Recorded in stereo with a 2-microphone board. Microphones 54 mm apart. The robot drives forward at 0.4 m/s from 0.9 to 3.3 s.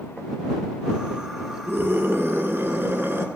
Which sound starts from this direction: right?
A scream, at 1.7 s.